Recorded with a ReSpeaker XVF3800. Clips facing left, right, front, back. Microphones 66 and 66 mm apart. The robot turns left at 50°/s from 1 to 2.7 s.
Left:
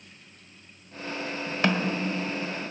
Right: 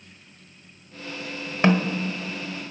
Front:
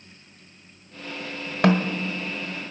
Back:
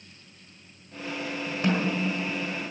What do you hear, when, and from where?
1.6 s a snare drum: 25° right, 1.3 m; by 1.9 s 40° right, 1.3 m